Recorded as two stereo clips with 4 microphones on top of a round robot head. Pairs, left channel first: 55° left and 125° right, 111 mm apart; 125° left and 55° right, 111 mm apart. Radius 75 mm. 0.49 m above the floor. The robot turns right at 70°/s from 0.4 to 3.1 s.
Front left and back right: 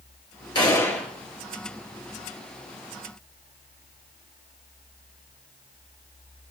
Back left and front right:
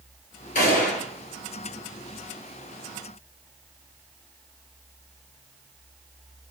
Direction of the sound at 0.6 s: 110° left.